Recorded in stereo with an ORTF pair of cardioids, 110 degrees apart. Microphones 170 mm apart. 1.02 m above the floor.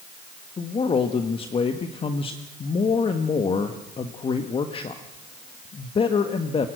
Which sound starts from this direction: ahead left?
A man speaking, at 0.6 s.